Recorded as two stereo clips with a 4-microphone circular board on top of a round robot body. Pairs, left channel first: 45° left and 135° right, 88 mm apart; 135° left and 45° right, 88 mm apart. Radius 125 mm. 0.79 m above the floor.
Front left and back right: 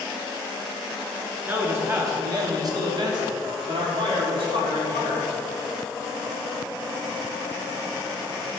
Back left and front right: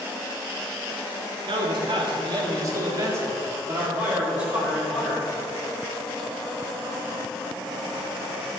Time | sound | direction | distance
1.5 | a man speaking | 70° right | 1.9 m